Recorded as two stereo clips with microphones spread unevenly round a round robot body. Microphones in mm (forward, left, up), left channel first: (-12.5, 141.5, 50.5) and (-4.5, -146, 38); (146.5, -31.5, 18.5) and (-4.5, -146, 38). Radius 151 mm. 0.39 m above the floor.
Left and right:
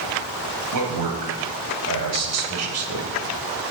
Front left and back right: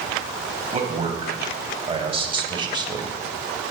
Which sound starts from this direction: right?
A man speaking, at 0.7 s.